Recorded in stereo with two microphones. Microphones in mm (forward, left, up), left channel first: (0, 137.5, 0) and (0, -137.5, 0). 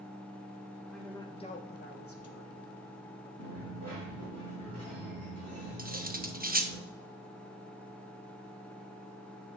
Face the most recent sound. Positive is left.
turn(degrees=-30)  # may be behind; listen again after turning